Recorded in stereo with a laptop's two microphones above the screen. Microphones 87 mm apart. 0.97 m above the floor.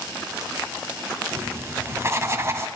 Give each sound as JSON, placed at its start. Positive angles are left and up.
{"t": 1.3, "sound": "writing", "side_deg": -35, "distance_m": 1.1}